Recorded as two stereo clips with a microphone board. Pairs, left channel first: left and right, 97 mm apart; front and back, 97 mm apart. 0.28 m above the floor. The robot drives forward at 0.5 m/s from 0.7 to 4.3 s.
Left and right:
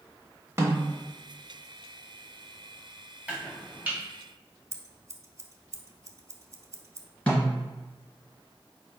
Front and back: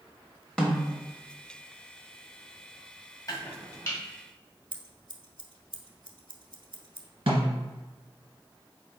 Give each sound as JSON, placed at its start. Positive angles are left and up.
{"t": 0.6, "sound": "a snare drum", "azimuth_deg": -75, "distance_m": 1.1}
{"t": 3.3, "sound": "chopping", "azimuth_deg": -20, "distance_m": 1.8}
{"t": 4.7, "sound": "scissors", "azimuth_deg": -145, "distance_m": 0.6}
{"t": 7.3, "sound": "a snare drum", "azimuth_deg": 165, "distance_m": 1.8}